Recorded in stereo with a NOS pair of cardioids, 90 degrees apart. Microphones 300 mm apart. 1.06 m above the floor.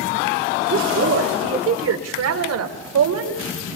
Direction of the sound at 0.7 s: 45° right.